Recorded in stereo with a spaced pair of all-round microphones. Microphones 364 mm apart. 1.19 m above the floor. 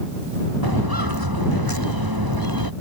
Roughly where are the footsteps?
Right.